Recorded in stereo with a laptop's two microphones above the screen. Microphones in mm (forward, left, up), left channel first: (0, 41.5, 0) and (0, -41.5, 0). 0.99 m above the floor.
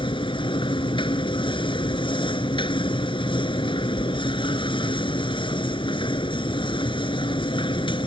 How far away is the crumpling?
No crumpling in this recording.